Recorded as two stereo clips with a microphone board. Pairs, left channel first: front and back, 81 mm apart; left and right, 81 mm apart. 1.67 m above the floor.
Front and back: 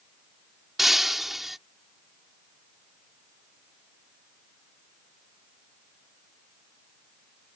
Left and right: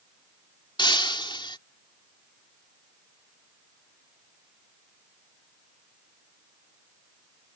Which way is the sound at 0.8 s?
90° left.